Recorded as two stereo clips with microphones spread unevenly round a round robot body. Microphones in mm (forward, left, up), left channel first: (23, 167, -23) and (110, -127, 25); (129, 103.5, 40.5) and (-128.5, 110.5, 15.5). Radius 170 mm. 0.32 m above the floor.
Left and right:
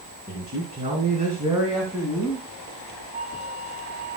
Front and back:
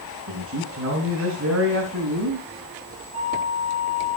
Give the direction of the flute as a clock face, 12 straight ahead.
5 o'clock.